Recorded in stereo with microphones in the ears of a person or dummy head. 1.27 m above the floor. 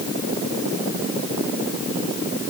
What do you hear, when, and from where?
Only background noise.